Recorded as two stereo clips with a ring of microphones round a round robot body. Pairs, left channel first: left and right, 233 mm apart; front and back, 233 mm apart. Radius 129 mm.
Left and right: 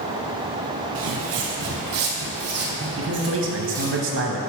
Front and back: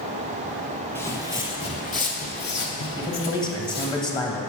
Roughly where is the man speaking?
Right.